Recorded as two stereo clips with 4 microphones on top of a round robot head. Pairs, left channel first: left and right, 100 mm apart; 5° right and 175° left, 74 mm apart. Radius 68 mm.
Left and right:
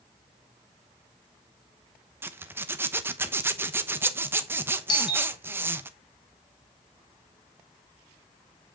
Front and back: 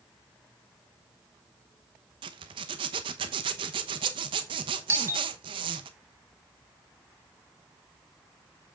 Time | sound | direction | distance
2.2 | a zipper | 160° right | 0.8 m
4.9 | a doorbell | 125° left | 1.9 m